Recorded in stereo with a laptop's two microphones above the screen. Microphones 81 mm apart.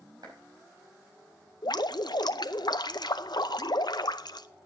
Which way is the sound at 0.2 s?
70° right (ahead or behind).